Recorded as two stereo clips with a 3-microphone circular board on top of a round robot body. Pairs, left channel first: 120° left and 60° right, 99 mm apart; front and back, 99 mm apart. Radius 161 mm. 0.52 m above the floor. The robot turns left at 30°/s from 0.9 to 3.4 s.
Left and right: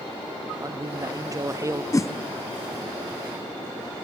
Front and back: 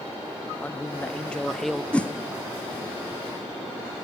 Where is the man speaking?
65° right, 0.8 m; by 1.8 s 90° right, 0.8 m.